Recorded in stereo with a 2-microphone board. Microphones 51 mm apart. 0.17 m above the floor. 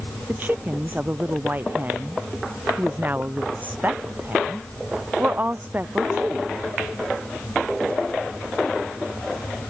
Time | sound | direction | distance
0.3 | a woman speaking | 35° right (ahead or behind) | ?